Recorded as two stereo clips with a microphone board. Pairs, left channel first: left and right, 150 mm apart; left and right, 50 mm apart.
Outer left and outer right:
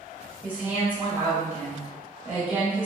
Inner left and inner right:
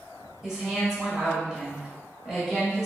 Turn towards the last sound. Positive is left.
turn(degrees=-10)  # may be behind; listen again after turning